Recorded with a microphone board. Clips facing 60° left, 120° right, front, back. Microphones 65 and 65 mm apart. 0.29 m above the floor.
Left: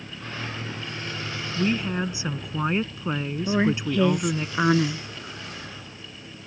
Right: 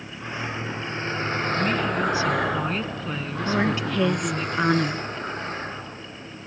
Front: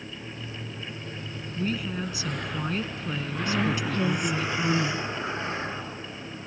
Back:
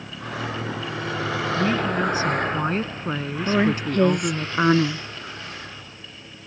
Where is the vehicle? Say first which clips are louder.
Right 3 dB, back 8 dB; 165° left; by 6.5 s 60° right.